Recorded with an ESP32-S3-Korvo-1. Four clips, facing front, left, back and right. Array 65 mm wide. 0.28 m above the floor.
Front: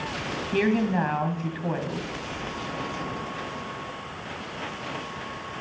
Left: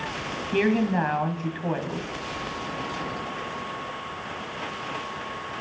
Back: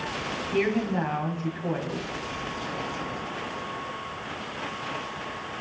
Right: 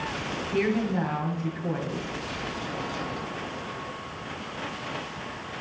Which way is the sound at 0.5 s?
60° left.